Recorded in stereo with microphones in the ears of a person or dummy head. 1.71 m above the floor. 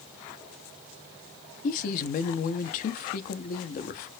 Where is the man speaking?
50° left (ahead or behind), 0.5 m.